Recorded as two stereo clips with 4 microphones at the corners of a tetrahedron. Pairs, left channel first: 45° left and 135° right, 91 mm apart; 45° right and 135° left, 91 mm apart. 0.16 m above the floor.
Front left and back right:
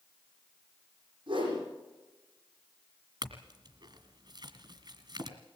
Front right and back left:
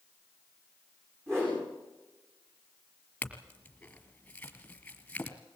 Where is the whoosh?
165° right, 9 m.